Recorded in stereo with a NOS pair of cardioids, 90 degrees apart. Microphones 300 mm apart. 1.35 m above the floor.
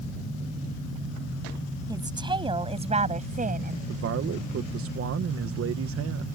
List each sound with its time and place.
1.9 s a woman speaking: 15° right; by 3.8 s 30° right
3.9 s a man speaking: 50° right